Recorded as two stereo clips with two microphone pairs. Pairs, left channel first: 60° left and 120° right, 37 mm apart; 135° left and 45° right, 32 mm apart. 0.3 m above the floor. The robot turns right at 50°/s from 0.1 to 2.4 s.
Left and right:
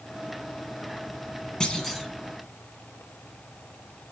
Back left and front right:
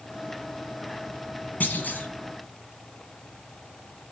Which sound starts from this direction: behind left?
A clunk, at 1.6 s.